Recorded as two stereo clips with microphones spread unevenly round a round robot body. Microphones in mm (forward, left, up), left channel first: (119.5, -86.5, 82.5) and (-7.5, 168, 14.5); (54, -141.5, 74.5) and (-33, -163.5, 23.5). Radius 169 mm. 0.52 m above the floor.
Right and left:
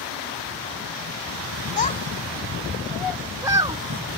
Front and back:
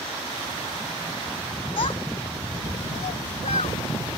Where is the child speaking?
Straight ahead; by 4.2 s 50° left.